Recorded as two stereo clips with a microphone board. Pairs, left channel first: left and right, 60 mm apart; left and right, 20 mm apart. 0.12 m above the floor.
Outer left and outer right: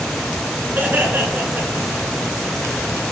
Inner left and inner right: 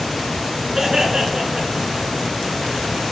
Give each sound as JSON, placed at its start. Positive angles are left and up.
{"t": 0.8, "sound": "laughter", "side_deg": -35, "distance_m": 1.7}